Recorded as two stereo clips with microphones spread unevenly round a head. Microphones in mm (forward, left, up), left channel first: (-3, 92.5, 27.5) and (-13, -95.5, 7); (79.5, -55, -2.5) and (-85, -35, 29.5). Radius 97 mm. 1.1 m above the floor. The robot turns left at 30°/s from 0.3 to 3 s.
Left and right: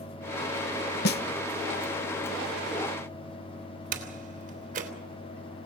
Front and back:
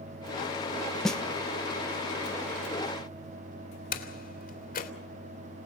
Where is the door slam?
40° right, 3 m.